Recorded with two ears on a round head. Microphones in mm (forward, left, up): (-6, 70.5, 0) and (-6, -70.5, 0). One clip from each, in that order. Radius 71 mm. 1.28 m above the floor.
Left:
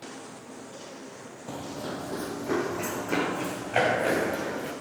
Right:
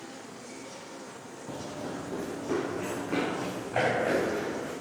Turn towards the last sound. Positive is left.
turn(degrees=75)  # may be behind; listen again after turning